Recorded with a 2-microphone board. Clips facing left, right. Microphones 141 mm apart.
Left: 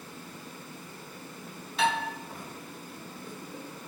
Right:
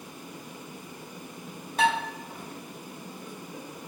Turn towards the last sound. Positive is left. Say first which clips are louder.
# right 3 dB
turn(degrees=-50)  # may be behind; listen again after turning